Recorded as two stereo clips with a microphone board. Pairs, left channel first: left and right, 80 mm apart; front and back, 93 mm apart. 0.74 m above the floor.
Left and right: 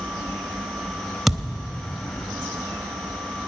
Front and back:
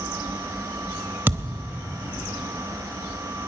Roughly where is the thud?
Behind.